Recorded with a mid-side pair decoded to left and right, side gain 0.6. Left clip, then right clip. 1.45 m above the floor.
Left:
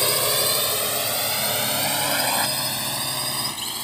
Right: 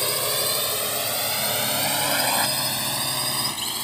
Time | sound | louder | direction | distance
0.0 | a drone | left 3 dB | 20° left | ?